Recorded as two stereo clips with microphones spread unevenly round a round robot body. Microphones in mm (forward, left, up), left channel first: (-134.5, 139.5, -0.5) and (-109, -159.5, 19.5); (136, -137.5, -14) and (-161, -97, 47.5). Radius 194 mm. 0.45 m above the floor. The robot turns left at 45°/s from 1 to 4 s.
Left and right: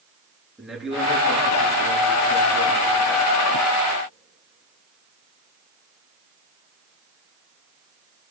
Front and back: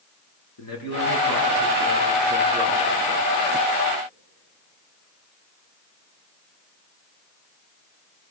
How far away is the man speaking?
About 6.5 m.